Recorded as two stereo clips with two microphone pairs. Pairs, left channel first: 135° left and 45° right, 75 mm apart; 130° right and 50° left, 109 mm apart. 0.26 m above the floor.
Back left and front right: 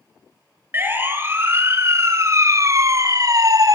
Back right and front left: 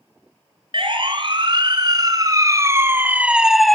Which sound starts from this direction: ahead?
A siren, at 0.7 s.